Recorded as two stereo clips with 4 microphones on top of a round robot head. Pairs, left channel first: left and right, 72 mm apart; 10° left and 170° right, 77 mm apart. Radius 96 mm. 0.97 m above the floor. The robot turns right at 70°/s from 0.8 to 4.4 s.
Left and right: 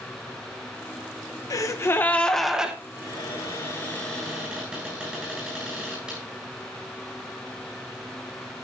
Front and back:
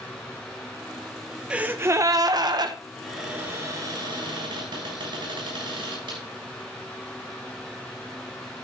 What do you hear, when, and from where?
1.5 s a gasp: 115° left, 1.0 m; by 2.8 s 160° right, 1.0 m
3.0 s a cupboard door: 90° left, 7.5 m; by 6.2 s 170° right, 7.5 m